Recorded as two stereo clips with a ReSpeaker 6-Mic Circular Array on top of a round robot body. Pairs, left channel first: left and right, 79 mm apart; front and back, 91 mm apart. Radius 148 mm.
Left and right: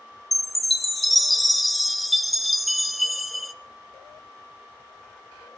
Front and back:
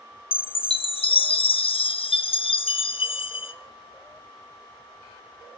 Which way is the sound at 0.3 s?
Straight ahead.